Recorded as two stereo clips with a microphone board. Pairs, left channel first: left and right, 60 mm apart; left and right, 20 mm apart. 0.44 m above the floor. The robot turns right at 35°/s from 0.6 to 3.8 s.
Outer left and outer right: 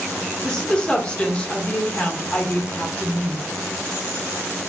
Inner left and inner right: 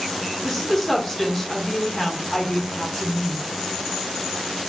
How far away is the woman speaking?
About 0.8 m.